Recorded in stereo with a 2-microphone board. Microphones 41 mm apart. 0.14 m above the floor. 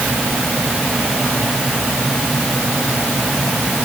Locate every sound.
Only background noise.